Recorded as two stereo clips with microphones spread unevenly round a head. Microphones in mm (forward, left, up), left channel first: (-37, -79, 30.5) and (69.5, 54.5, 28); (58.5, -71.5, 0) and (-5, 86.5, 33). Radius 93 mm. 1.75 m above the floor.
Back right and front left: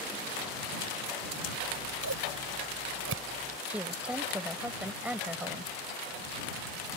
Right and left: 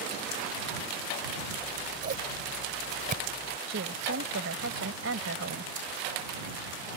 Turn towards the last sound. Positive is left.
turn(degrees=135)